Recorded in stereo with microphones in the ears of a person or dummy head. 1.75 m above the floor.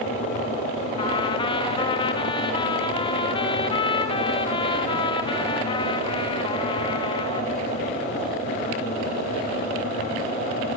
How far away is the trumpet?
About 1.2 m.